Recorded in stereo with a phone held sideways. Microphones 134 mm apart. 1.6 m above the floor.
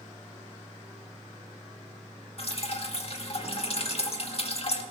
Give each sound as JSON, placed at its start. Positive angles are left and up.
{"t": 2.4, "sound": "dripping", "side_deg": 50, "distance_m": 2.0}